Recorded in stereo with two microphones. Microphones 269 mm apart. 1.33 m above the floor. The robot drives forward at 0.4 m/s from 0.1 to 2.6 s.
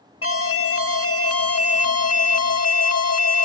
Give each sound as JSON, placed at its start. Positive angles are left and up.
{"t": 0.2, "sound": "an alarm", "side_deg": 60}